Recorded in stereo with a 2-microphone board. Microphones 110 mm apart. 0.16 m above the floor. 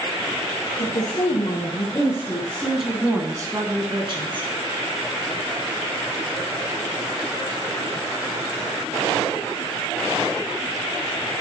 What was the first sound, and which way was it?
A woman speaking, 45° left (ahead or behind).